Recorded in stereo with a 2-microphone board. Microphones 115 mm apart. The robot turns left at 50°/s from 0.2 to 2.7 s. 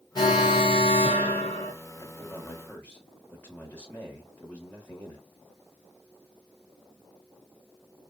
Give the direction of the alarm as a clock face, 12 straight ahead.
8 o'clock.